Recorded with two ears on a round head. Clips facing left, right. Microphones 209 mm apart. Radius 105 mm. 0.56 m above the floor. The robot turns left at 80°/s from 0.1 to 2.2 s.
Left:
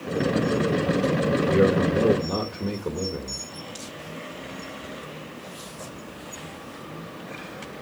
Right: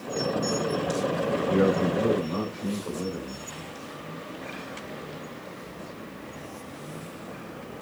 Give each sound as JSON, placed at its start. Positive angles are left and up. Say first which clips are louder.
{"t": 1.5, "sound": "a man speaking", "louder": "left 2 dB", "azimuth_deg": 140, "distance_m": 2.0}